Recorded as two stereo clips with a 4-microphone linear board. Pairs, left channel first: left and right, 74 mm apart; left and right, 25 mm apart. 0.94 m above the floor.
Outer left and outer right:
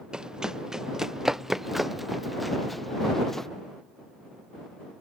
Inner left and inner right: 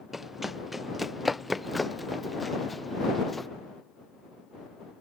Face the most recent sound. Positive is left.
turn(degrees=5)  # may be behind; listen again after turning